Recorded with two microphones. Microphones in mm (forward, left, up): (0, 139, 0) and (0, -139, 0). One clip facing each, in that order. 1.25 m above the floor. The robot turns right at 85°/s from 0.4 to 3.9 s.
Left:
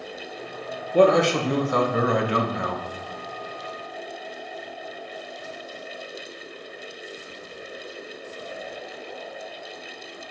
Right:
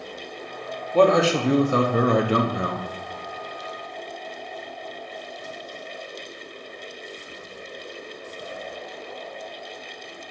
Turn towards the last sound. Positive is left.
turn(degrees=50)